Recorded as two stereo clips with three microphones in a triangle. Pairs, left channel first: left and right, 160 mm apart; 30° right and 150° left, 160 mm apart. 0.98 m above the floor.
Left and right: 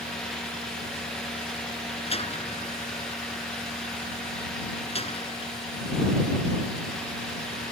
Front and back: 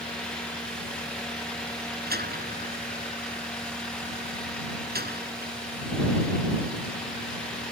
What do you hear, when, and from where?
2.1 s a door slam: 140° left